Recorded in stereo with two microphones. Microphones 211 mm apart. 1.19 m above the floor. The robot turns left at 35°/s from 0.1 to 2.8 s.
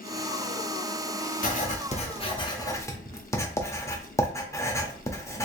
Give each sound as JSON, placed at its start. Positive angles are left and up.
{"t": 1.4, "sound": "writing", "side_deg": 40, "distance_m": 0.7}